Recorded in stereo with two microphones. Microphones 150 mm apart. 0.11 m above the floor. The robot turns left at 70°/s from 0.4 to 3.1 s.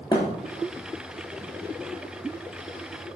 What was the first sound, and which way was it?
A thud, 25° left (ahead or behind).